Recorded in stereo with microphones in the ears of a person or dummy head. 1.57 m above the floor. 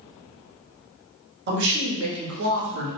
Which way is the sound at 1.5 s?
60° right (ahead or behind).